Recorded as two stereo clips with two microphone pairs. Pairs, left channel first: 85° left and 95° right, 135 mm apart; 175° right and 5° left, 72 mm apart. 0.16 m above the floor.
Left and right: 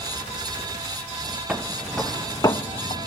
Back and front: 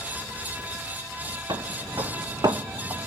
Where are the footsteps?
15° right, 0.9 m; by 3.1 s 55° left, 0.7 m.